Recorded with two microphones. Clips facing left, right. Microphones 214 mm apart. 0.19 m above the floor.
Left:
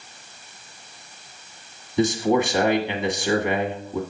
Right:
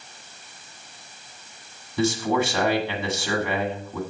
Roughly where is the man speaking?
Centre.